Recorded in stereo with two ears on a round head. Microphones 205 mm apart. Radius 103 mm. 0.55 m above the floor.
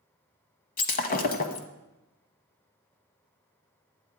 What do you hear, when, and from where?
0.8 s breaking glass: 35° left (ahead or behind), 0.9 m